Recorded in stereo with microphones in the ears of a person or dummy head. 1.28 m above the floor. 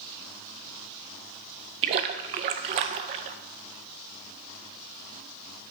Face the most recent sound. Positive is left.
turn(degrees=-35)  # may be behind; listen again after turning